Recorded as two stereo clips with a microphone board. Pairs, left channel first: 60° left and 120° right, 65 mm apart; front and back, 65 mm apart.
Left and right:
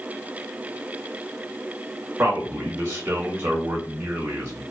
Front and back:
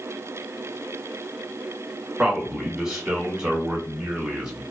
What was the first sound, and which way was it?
A man speaking, 95° right.